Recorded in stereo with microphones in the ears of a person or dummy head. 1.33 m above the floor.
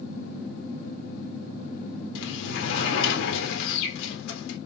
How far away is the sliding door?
About 3.5 m.